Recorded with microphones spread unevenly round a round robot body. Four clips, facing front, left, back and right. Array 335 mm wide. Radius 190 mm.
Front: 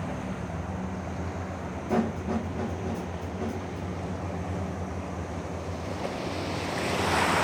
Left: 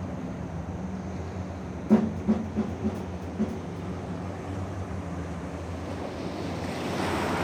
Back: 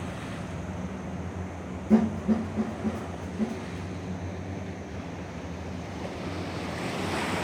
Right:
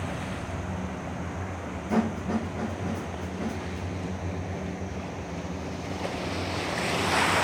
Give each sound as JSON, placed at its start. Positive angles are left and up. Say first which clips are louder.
{"t": 1.9, "sound": "a snare drum", "louder": "left 4 dB, back 4 dB", "azimuth_deg": 105, "distance_m": 1.0}